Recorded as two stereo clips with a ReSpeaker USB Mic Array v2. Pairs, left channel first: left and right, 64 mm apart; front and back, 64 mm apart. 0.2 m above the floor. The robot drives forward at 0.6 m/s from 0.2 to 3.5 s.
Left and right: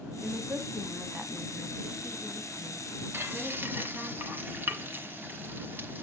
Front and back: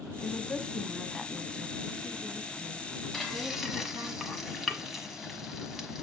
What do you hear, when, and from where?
0.2 s a woman speaking: 60° right, 1.2 m; by 4.1 s 160° right, 2.0 m
3.1 s frying: 80° right, 1.4 m; by 6.0 s 100° right, 1.4 m